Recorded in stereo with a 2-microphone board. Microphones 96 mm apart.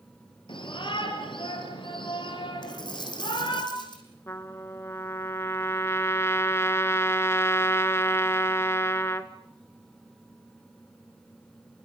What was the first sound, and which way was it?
A shout, 60° left (ahead or behind).